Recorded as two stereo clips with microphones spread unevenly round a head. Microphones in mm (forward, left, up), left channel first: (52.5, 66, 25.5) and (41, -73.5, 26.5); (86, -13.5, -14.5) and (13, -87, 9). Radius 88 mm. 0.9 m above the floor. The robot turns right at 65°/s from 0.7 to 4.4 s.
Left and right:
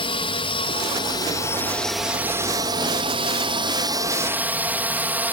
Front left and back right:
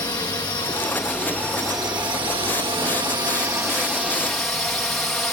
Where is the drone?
95° left; by 5.3 s 25° right.